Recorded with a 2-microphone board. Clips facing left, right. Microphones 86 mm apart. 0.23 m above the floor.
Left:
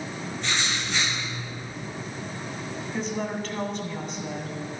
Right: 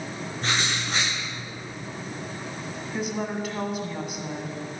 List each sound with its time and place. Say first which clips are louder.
0.4 s writing: right 2 dB; 40° right (ahead or behind), 4.5 m
2.9 s a woman speaking: right 1 dB; 5° right (ahead or behind), 1.8 m